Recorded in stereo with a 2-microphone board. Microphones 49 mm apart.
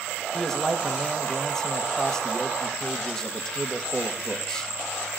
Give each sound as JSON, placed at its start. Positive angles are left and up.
{"t": 0.3, "sound": "a man speaking", "side_deg": 15, "distance_m": 1.9}